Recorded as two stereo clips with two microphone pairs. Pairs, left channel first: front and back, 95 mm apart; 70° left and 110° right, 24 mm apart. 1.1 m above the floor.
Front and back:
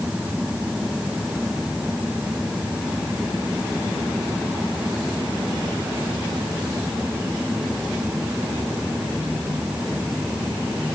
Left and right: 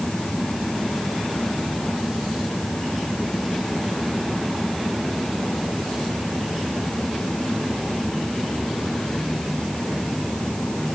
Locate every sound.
Only background noise.